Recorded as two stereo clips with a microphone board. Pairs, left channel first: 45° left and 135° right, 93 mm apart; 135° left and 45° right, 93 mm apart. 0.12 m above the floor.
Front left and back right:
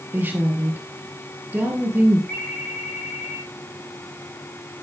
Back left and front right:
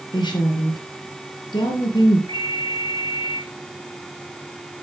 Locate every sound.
0.1 s a woman speaking: 160° left, 2.5 m
2.3 s a ringtone: 30° right, 4 m